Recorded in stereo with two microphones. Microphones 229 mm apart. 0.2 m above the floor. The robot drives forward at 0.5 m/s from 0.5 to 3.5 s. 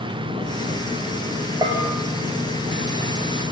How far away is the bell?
About 5 m.